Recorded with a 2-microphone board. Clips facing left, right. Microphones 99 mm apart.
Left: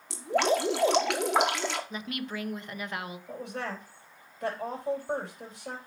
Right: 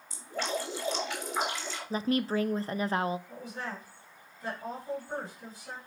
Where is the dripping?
80° left, 1.2 m.